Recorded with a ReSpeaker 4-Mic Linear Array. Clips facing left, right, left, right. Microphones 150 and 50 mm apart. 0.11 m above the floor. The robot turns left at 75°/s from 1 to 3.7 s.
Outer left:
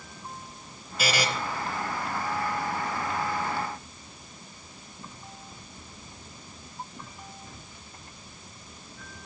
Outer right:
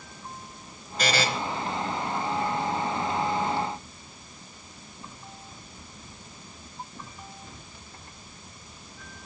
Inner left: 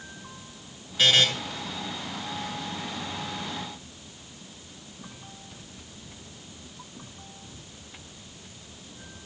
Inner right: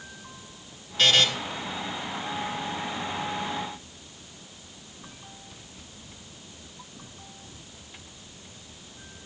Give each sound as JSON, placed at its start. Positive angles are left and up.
{"t": 1.0, "sound": "a buzzer", "side_deg": 5, "distance_m": 1.7}